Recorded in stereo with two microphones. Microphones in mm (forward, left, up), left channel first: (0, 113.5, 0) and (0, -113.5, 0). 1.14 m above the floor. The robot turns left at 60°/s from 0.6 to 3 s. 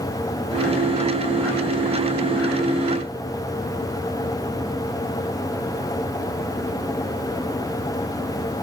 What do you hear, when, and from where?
Only background noise.